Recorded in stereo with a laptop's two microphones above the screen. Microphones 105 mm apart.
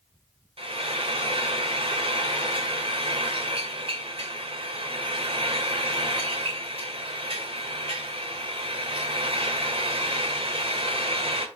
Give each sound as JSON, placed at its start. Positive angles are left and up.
{"t": 0.6, "sound": "frying", "side_deg": -65, "distance_m": 1.9}